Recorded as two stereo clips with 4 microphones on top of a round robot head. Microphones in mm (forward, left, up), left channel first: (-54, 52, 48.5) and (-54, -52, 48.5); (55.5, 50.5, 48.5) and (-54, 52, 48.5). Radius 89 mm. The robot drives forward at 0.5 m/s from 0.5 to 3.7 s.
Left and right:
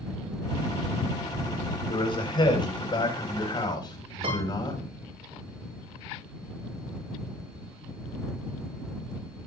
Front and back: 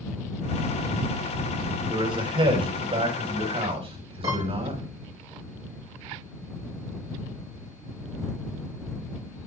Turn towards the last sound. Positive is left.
turn(degrees=-120)